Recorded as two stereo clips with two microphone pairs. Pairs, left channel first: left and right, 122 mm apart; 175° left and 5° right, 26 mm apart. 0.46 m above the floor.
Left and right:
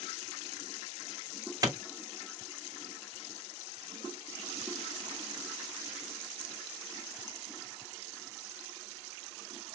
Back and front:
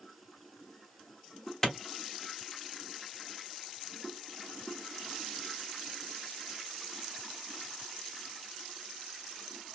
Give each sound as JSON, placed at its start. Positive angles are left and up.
{"t": 1.6, "sound": "a clap", "azimuth_deg": -125, "distance_m": 0.8}